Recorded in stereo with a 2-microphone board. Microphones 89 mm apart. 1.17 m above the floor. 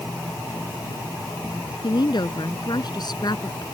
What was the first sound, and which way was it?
A woman speaking, 55° left (ahead or behind).